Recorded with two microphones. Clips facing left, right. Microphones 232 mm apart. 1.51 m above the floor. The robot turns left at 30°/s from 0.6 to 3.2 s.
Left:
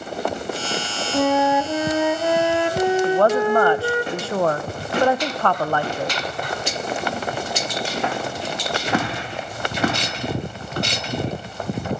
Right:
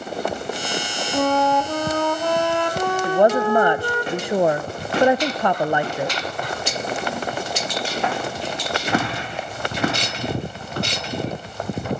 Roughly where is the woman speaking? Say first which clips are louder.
Even; centre.